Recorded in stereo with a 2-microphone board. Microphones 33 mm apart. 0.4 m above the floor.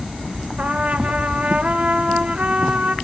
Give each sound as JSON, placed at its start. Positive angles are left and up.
{"t": 0.6, "sound": "a trumpet", "side_deg": -45, "distance_m": 0.6}